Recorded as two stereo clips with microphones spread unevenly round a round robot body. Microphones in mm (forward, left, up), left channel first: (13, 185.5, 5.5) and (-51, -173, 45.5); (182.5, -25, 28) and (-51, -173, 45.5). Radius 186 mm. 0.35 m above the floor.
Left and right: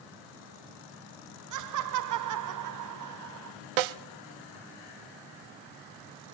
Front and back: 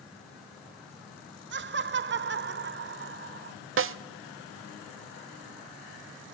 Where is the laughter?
115° right, 1.2 m.